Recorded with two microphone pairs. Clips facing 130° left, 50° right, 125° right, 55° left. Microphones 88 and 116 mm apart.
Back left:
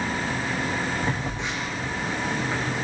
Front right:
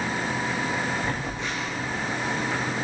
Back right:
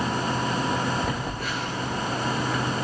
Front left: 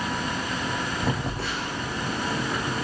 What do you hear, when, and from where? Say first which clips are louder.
1.0 s a phone buzzing: back left 1 dB, front left 1 dB; 60° left, 9.5 m